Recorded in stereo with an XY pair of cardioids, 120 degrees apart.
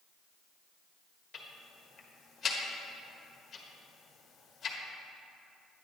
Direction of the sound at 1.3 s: 40° left.